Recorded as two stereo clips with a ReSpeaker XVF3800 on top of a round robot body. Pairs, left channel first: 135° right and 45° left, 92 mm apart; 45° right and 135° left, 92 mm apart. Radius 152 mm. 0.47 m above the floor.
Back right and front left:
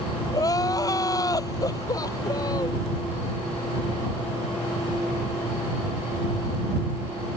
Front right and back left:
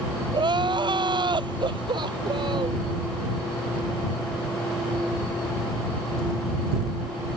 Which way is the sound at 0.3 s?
175° left.